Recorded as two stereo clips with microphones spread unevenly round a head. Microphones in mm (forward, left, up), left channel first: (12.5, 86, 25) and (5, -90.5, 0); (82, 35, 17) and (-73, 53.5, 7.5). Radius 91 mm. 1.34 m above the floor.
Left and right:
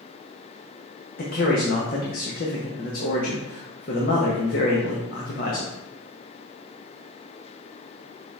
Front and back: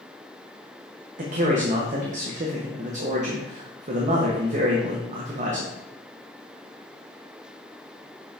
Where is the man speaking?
130° left, 0.8 m.